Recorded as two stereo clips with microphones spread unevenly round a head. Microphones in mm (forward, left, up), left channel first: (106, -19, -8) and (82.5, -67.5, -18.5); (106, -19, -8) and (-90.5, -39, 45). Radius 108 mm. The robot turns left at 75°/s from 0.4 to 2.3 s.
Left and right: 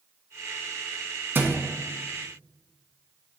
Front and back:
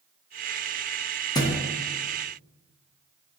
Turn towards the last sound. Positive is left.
turn(degrees=-145)